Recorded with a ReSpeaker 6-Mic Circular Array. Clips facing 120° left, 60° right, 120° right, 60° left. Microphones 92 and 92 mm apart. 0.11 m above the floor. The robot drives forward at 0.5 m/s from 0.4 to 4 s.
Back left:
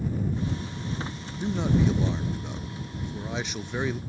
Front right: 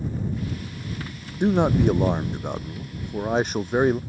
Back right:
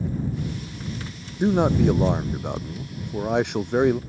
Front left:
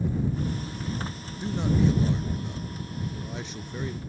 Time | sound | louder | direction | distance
1.4 | a man speaking | front right 6 dB, back right 6 dB | 90° right | ?